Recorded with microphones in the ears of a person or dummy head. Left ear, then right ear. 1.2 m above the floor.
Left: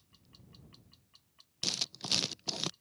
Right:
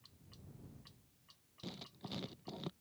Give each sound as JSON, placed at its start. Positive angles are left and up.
{"t": 1.6, "sound": "writing", "side_deg": 70}